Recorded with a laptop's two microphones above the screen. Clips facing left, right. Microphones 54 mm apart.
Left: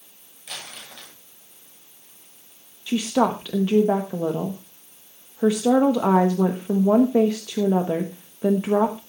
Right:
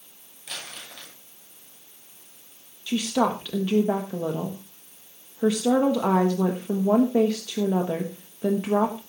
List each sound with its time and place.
0.5 s crumpling: 5° left (ahead or behind), 6 m
2.9 s a woman speaking: 10° left (ahead or behind), 1.1 m